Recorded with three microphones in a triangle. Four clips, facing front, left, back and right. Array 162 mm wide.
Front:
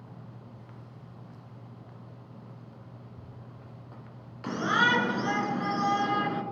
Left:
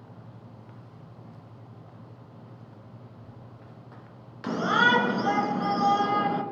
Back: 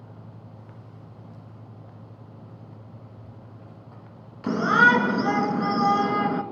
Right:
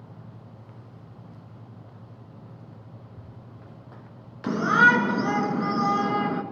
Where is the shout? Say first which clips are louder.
Right 4 dB, back 7 dB; 155° right, 2 m.